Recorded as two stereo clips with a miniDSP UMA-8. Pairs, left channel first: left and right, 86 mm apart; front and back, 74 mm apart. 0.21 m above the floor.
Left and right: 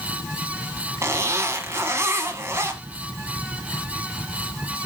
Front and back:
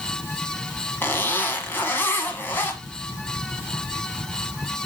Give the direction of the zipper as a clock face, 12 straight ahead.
2 o'clock.